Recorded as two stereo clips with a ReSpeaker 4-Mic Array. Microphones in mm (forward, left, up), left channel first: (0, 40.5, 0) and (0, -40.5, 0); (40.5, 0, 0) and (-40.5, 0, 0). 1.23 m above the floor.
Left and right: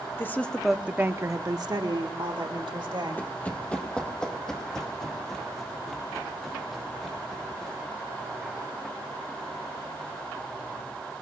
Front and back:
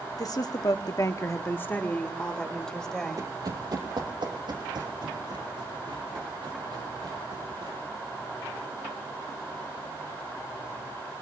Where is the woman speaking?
30° left, 1.0 m; by 3.2 s 85° right, 2.5 m.